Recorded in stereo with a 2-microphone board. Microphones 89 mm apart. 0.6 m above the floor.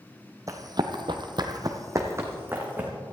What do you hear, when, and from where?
0.5 s running footsteps: 40° right (ahead or behind), 1.3 m; by 2.9 s 20° right (ahead or behind), 2.5 m